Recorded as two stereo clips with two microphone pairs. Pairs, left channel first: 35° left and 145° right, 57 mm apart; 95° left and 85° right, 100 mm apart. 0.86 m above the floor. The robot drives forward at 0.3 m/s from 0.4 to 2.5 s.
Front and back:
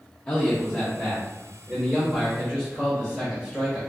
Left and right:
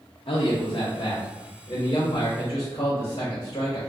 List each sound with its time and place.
0.3 s a man speaking: 100° left, 0.6 m; by 3.8 s 145° left, 1.0 m